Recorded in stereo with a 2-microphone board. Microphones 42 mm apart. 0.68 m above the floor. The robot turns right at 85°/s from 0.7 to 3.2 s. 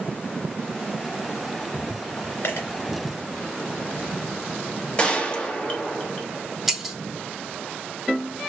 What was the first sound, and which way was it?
A dropped coin, 60° left (ahead or behind).